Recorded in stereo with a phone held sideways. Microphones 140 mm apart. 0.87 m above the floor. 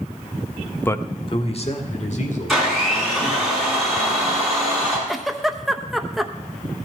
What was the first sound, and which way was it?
A man speaking, 15° left (ahead or behind).